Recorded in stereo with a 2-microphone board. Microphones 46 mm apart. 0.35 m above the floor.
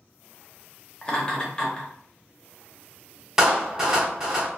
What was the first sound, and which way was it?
Laughter, 20° left (ahead or behind).